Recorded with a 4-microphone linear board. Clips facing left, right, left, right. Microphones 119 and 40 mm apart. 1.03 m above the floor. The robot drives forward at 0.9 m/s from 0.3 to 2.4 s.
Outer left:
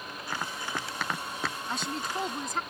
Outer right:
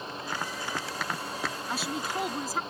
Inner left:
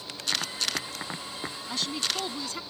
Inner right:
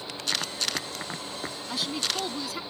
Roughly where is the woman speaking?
Centre.